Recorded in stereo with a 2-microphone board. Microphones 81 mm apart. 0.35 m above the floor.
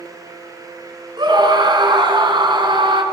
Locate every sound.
1.2 s a scream: 65° right (ahead or behind), 4 m; by 3.0 s 75° right (ahead or behind), 4 m